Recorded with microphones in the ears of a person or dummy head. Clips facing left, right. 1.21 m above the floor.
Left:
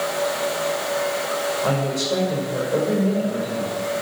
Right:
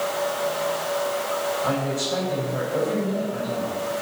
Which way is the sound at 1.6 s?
85° left.